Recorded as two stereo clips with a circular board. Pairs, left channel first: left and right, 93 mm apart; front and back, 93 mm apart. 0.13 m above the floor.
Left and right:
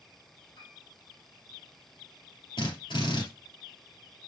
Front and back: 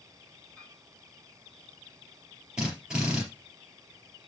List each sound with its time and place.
0.6 s a piano: 75° left, 5 m
2.6 s a drill: 100° left, 3.5 m